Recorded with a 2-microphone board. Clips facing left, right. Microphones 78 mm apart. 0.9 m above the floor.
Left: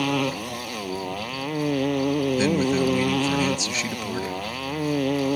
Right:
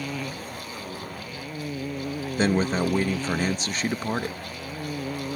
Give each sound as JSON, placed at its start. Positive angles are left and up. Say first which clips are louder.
{"t": 0.0, "sound": "a motorcycle", "louder": "left 8 dB", "side_deg": 80}
{"t": 2.4, "sound": "a man speaking", "louder": "right 3 dB", "side_deg": -45}